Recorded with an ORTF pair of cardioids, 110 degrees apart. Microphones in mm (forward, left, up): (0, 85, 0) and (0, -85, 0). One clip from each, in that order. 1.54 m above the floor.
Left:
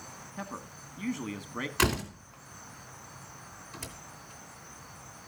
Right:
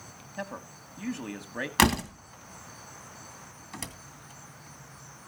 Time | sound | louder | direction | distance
0.4 | a man speaking | right 4 dB | 10° right | 1.5 m
1.8 | a door slam | right 5 dB | 65° right | 2.5 m